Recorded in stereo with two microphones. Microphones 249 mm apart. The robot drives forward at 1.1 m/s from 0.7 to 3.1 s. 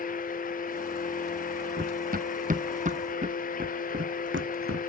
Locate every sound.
1.8 s running footsteps: 40° right (ahead or behind); by 4.9 s 75° right (ahead or behind)